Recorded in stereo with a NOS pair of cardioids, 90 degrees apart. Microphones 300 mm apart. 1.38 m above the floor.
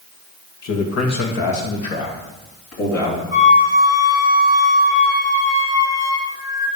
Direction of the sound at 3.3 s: 45° left.